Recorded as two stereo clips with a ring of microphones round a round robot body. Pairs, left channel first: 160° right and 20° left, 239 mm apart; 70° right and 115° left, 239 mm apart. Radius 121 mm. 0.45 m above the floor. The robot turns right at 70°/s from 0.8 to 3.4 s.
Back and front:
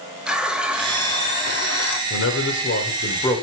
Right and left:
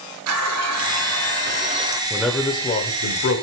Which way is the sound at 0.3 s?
110° left.